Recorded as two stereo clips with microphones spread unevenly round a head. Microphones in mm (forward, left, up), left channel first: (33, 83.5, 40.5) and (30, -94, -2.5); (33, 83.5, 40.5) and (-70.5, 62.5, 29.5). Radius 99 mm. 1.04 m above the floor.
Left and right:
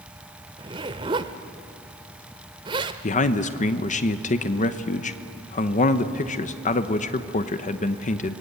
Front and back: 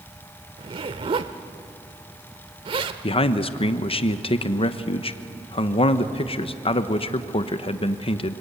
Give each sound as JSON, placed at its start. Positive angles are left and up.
{"t": 0.6, "sound": "a zipper", "azimuth_deg": -160, "distance_m": 0.8}
{"t": 3.0, "sound": "a man speaking", "azimuth_deg": 35, "distance_m": 1.1}